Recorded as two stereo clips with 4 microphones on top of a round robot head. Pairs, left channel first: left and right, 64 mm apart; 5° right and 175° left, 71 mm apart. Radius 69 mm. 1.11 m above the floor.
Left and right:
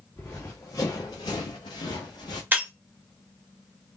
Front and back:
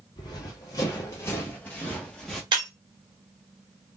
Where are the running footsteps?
15° left, 1.8 m; by 2.4 s 80° left, 1.6 m.